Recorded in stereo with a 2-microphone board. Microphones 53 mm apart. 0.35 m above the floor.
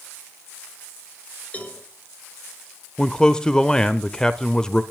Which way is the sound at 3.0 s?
15° left (ahead or behind).